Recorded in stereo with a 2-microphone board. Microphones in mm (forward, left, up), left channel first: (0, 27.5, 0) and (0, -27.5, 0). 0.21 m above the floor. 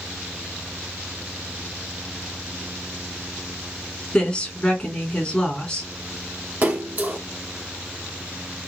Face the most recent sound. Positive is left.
turn(degrees=-30)  # may be behind; listen again after turning